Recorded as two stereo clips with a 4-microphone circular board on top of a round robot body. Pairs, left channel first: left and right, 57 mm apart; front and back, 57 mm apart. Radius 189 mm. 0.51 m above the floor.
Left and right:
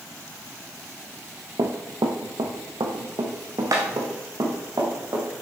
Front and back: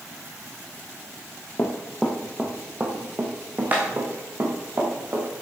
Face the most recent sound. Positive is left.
turn(degrees=-130)